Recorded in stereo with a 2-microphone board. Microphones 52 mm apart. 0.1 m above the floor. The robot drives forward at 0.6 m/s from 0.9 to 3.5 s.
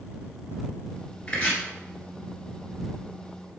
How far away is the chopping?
About 1.4 m.